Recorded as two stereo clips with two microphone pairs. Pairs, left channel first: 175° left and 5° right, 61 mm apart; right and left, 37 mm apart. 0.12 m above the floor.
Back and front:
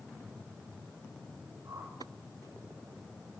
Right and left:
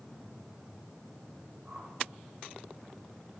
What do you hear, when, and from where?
1.6 s a whoosh: 25° left, 3.5 m